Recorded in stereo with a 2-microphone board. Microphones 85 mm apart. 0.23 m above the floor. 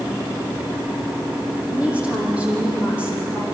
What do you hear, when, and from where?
1.7 s a woman speaking: 15° right (ahead or behind), 8 m